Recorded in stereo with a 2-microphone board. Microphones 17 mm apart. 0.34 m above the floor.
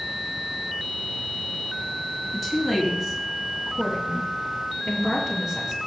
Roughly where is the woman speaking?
Centre.